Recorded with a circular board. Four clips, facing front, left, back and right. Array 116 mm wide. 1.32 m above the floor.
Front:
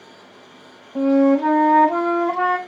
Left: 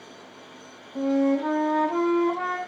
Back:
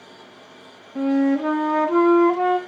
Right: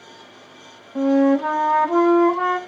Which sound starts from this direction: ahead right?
A flute, at 0.9 s.